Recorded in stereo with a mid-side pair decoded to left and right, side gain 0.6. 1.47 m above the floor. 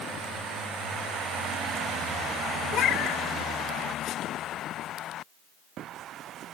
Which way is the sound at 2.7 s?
60° left.